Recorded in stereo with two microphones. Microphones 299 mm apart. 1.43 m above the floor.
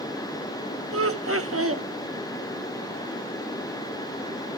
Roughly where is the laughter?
Right.